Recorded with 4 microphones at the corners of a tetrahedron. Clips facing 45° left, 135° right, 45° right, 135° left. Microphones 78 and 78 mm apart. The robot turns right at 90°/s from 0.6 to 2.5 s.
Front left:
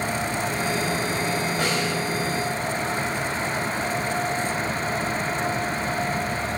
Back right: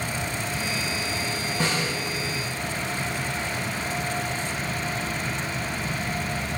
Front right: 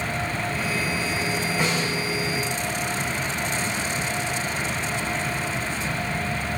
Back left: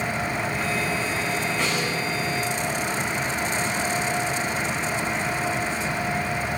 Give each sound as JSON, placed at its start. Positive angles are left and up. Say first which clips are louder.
{"t": 1.6, "sound": "a snare drum", "louder": "front left 2 dB, front right 1 dB", "azimuth_deg": 35, "distance_m": 6.0}